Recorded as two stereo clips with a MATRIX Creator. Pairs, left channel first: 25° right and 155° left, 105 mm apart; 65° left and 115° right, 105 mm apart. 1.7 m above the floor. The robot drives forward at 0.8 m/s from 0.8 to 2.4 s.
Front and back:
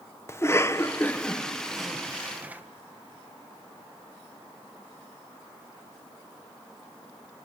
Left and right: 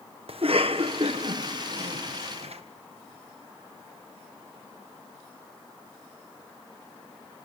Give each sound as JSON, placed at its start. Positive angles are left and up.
{"t": 0.3, "sound": "a cough", "azimuth_deg": -85, "distance_m": 1.5}